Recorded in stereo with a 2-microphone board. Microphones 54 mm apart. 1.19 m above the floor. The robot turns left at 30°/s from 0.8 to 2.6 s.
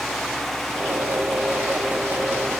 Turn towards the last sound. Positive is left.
No sound to turn to.